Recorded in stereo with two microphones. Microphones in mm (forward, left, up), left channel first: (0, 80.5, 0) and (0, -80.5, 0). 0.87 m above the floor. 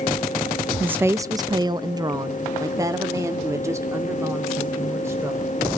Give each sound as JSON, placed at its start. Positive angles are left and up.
{"t": 0.8, "sound": "a woman speaking", "side_deg": -10, "distance_m": 0.6}